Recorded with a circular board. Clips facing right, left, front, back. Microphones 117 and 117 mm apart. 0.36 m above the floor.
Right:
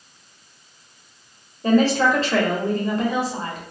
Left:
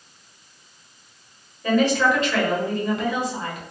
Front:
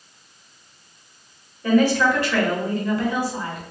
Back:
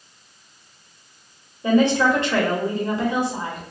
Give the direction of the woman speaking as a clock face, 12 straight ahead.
4 o'clock.